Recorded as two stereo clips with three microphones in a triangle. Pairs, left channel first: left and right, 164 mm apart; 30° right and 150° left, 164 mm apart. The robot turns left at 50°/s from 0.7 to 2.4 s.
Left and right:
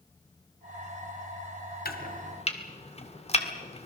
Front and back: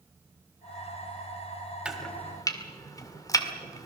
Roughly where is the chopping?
Ahead left.